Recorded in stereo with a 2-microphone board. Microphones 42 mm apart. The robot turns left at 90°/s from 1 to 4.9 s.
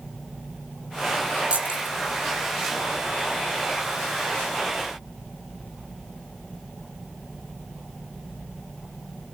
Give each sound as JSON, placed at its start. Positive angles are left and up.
{"t": 1.5, "sound": "keys jangling", "side_deg": -30, "distance_m": 0.7}